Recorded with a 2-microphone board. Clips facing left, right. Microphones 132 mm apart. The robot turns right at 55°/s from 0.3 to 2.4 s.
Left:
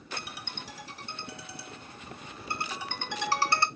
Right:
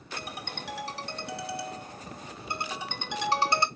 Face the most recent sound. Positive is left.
turn(degrees=-20)